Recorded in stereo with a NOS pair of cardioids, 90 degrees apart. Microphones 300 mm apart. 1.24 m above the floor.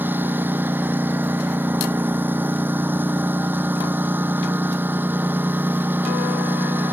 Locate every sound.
0.0 s a lawn mower: 5° right